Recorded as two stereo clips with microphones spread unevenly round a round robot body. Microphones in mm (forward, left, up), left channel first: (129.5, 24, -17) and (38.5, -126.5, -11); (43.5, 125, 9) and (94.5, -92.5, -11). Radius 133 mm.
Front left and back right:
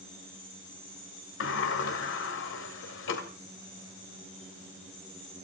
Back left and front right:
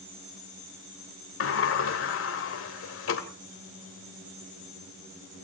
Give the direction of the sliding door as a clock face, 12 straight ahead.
9 o'clock.